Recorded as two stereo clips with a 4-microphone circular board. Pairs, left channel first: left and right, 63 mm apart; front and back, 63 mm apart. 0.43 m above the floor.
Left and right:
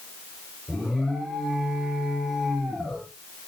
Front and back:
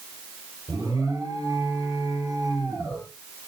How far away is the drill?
I don't hear a drill.